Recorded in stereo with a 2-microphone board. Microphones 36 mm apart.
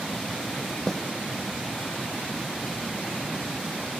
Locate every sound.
0.9 s a snare drum: 10° left (ahead or behind)